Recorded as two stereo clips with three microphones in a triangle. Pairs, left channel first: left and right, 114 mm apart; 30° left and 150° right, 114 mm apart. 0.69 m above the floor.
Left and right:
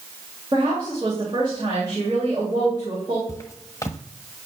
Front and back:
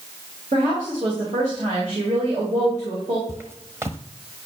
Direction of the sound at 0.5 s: 140° right.